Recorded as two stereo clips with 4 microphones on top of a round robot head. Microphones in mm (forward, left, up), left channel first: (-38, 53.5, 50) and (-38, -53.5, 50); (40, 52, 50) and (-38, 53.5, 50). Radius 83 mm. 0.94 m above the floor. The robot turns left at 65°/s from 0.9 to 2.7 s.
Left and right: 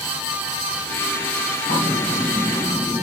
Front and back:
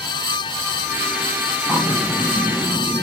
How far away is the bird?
About 2.5 m.